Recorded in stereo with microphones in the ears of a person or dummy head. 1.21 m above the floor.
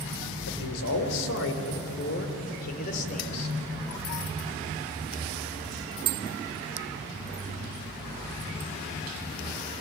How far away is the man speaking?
About 4 m.